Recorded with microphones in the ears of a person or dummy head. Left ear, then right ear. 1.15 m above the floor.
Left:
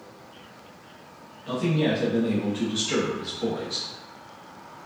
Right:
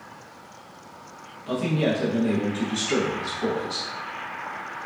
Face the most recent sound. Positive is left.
turn(degrees=-10)  # may be behind; listen again after turning